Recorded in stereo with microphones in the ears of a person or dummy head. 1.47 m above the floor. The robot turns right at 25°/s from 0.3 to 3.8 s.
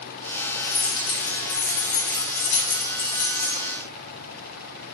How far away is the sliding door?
I don't hear a sliding door.